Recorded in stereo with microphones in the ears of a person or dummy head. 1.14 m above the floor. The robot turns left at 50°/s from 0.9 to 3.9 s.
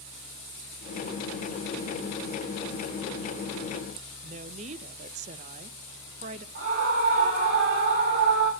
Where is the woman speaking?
35° right (ahead or behind), 0.5 m.